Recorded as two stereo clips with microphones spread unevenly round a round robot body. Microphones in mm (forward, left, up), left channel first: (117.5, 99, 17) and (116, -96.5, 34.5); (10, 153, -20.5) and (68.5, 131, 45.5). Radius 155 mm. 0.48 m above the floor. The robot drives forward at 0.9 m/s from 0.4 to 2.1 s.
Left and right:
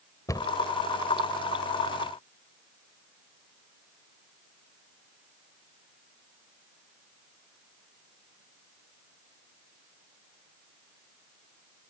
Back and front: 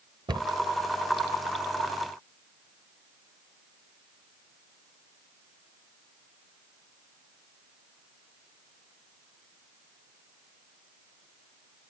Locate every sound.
0.3 s a cupboard door: 20° left